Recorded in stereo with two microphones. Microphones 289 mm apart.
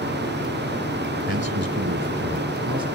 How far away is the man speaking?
About 1.8 m.